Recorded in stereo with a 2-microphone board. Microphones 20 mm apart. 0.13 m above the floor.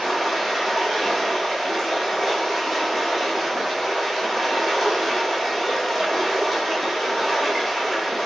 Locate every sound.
0.0 s running water: 10° left (ahead or behind), 0.9 m